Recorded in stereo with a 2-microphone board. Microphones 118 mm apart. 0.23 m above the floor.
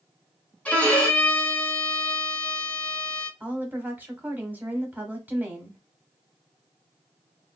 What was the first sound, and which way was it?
A violin, 10° left (ahead or behind).